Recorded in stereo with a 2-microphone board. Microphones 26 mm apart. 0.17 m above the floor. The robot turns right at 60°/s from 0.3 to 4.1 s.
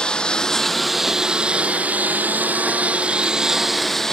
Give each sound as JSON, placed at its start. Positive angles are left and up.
{"t": 0.0, "sound": "a lawn mower", "azimuth_deg": 145}